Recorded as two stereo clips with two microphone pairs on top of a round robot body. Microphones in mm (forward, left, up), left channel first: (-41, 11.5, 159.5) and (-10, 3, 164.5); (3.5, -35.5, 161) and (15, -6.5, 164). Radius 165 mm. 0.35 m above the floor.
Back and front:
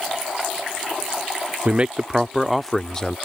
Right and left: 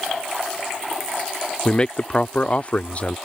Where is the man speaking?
65° right; by 3.2 s 145° right.